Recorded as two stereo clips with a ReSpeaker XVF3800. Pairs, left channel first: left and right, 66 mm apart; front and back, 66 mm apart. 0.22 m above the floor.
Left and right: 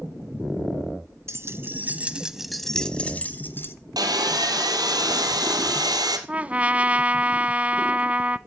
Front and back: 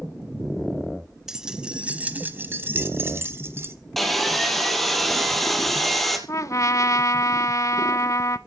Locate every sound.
1.3 s keys jangling: 100° right, 1.2 m; by 3.8 s 140° left, 1.4 m
4.0 s sawing: 85° right, 2.5 m
6.3 s a trumpet: 25° right, 0.6 m